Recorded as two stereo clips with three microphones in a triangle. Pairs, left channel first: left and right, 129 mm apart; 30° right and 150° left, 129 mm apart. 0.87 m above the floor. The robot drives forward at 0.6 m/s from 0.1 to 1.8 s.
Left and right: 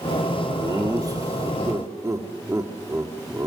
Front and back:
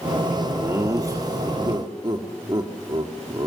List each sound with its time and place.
0.6 s laughter: 145° right, 1.6 m; by 3.5 s 155° right, 2 m